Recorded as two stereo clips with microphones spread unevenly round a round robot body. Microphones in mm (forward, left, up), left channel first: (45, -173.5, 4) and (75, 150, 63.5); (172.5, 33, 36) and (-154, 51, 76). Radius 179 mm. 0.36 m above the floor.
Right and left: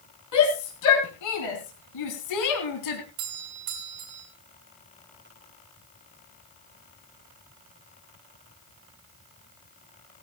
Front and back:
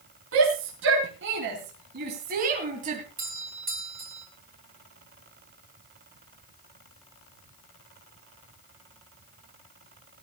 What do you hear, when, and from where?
0.3 s a shout: 130° right, 4 m; by 3.0 s 110° right, 3 m
3.2 s a doorbell: 110° left, 5 m